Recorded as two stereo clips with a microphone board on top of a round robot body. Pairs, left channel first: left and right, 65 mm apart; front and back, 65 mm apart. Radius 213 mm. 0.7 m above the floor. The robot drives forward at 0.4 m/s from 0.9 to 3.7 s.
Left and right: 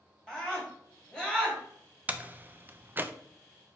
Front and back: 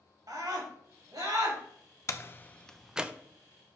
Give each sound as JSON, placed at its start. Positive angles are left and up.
{"t": 0.3, "sound": "a scream", "azimuth_deg": 165, "distance_m": 1.9}
{"t": 2.1, "sound": "a door slam", "azimuth_deg": -30, "distance_m": 0.6}